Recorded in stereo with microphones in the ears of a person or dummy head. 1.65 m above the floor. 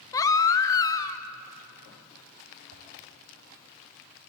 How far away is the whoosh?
About 5.5 m.